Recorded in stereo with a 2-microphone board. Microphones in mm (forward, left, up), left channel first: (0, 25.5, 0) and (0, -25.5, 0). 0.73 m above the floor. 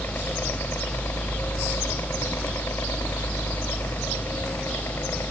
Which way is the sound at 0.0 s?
45° left (ahead or behind).